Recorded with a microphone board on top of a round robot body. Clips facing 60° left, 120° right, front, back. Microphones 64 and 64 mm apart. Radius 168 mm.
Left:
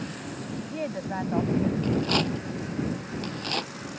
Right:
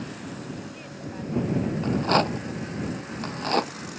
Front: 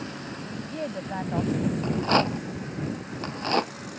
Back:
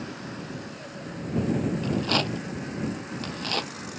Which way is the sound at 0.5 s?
20° left.